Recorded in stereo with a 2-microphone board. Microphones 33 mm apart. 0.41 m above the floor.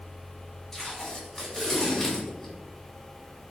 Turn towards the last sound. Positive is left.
turn(degrees=10)  # may be behind; listen again after turning